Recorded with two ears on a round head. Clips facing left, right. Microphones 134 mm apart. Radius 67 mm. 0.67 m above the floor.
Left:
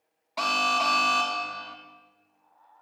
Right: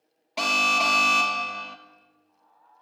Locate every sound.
0.4 s an alarm: 30° right (ahead or behind), 1.0 m